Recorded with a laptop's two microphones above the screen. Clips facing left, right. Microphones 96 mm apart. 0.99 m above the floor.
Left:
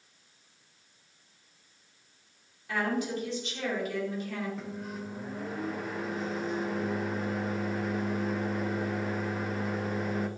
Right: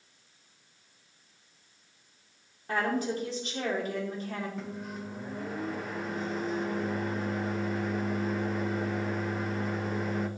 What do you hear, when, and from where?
2.7 s a woman speaking: 40° right (ahead or behind), 2.5 m
4.6 s a microwave: centre (ahead or behind), 0.7 m